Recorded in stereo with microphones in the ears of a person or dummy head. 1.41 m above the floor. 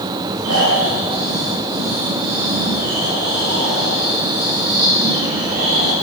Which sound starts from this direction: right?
Snoring, at 0.4 s.